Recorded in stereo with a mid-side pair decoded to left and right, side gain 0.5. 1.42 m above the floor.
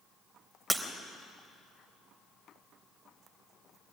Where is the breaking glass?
10° right, 3 m.